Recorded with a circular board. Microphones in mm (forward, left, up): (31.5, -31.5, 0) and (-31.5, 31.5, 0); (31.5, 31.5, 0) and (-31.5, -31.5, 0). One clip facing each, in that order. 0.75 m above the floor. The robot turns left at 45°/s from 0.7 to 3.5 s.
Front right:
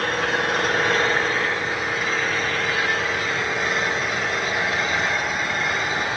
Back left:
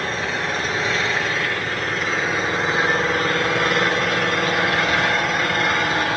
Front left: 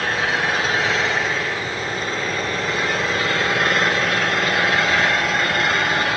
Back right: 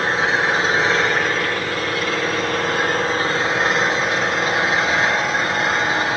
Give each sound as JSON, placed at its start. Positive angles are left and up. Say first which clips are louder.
{"t": 0.0, "sound": "an engine running", "louder": "front right 2 dB, back right 3 dB", "azimuth_deg": -70, "distance_m": 10.0}